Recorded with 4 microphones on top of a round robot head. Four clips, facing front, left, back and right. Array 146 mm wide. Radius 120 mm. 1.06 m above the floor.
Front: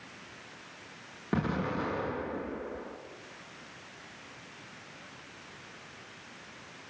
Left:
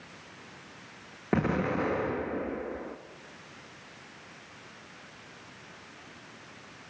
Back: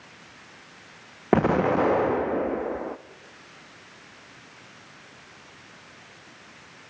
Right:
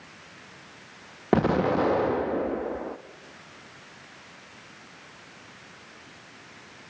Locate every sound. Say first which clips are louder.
1.3 s an explosion: right 6 dB, back 11 dB; 150° right, 0.5 m